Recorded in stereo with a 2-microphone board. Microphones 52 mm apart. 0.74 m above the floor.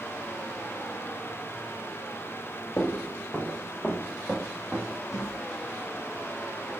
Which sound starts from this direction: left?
Footsteps, at 2.8 s.